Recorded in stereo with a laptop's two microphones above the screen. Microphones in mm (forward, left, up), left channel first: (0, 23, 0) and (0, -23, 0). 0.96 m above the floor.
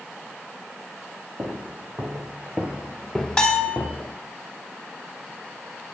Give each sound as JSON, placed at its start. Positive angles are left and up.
{"t": 1.4, "sound": "footsteps", "side_deg": -65, "distance_m": 2.0}
{"t": 3.4, "sound": "a bell", "side_deg": 15, "distance_m": 2.5}